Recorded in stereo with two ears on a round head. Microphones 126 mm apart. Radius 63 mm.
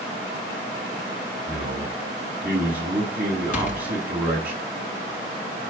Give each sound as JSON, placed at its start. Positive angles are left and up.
{"t": 1.5, "sound": "a man speaking", "side_deg": -10, "distance_m": 8.5}
{"t": 3.5, "sound": "a door slam", "side_deg": 65, "distance_m": 4.0}